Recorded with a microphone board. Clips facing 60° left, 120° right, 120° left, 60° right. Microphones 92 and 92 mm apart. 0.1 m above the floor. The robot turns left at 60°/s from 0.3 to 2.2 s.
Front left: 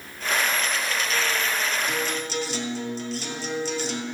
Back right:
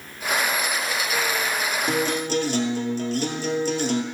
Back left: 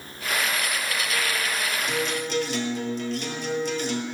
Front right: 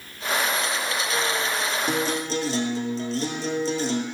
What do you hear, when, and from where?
1.9 s a guitar: 90° right, 1.1 m; by 4.0 s 110° right, 1.1 m